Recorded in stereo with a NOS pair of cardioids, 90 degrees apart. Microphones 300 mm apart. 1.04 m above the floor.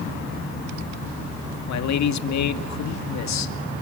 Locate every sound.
1.7 s a man speaking: 70° left, 2 m